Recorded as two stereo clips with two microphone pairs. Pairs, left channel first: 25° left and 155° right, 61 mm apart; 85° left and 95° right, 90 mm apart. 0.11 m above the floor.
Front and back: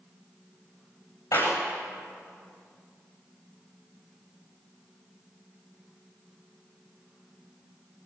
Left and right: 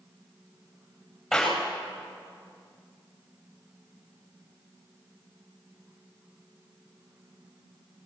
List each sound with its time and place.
1.3 s a clap: 5° right, 9.5 m